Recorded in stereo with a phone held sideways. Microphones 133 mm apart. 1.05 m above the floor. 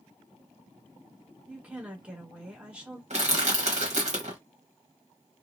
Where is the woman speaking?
10° right (ahead or behind), 1.2 m.